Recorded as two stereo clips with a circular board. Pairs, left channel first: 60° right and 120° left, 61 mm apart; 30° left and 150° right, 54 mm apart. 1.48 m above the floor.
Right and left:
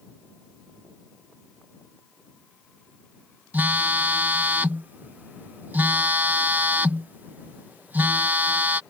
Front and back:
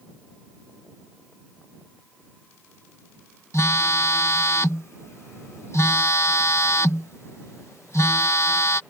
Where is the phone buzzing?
60° left.